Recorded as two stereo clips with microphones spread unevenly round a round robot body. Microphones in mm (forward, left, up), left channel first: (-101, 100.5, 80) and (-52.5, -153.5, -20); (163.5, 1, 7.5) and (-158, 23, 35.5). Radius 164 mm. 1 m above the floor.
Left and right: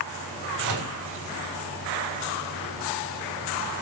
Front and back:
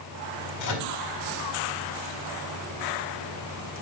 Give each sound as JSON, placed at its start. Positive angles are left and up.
{"t": 0.6, "sound": "a microwave", "azimuth_deg": -40, "distance_m": 4.5}